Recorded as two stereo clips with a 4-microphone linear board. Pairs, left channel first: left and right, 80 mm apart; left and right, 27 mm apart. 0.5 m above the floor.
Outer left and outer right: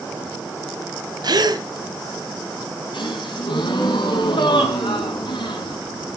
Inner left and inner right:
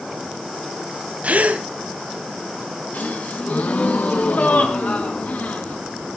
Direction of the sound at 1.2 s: 55° right (ahead or behind).